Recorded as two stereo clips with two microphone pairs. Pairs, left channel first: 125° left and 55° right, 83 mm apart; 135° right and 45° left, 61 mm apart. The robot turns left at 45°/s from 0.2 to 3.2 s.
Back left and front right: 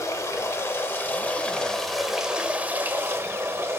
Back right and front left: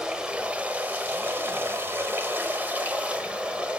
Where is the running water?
115° left, 1.1 m; by 3.8 s 20° right, 1.1 m.